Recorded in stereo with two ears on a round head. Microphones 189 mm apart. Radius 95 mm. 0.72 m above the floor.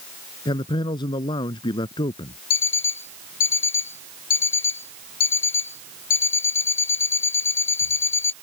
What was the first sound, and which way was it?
A man speaking, 25° left (ahead or behind).